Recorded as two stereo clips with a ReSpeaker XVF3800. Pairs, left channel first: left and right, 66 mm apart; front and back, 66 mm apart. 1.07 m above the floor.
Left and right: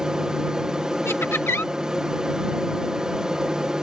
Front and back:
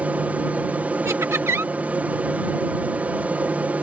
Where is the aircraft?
155° right.